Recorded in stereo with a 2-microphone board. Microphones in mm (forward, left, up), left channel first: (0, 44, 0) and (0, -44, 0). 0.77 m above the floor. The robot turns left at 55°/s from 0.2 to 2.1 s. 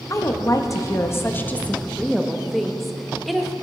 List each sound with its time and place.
0.1 s a woman speaking: 105° left, 0.6 m; by 3.5 s straight ahead, 0.6 m